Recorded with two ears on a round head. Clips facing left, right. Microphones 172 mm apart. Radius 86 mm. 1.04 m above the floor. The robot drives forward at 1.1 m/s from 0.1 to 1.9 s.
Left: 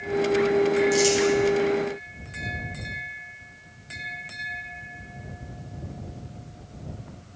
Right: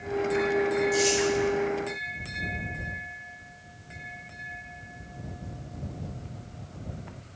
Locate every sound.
0.9 s crumpling: 70° left (ahead or behind), 3 m; by 1.2 s 65° left (ahead or behind), 3 m